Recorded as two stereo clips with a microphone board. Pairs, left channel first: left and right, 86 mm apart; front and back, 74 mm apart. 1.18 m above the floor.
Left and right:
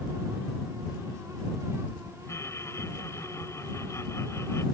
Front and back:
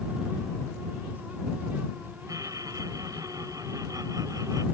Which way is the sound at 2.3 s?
145° left.